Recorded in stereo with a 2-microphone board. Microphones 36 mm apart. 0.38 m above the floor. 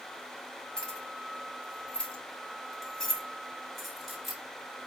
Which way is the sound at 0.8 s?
20° left (ahead or behind).